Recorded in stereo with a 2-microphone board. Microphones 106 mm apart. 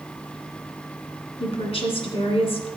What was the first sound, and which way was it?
A woman speaking, 65° left (ahead or behind).